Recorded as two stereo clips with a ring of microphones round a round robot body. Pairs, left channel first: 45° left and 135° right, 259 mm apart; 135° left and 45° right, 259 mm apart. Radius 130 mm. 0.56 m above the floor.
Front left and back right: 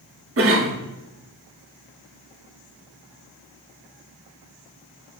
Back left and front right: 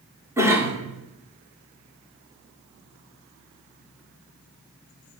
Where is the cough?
120° right, 1.7 m.